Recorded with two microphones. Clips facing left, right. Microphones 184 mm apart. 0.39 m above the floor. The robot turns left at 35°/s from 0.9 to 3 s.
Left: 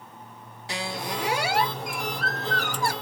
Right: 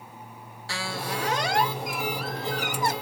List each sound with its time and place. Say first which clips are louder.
0.7 s a squeak: left 1 dB; 35° left, 0.6 m; by 2.9 s 40° right, 0.6 m